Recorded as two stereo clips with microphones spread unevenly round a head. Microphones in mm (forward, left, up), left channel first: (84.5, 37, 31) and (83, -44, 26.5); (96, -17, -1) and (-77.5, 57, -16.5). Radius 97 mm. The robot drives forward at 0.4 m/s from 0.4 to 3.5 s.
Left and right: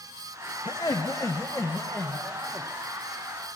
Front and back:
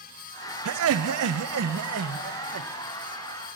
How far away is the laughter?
About 0.6 m.